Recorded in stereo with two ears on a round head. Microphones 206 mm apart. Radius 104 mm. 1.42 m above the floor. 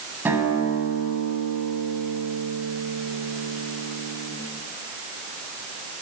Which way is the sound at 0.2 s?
10° right (ahead or behind).